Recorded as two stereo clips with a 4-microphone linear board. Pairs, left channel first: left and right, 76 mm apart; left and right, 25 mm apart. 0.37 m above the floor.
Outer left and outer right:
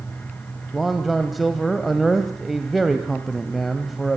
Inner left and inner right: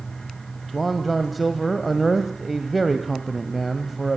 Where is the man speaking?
Centre (ahead or behind), 1.7 m.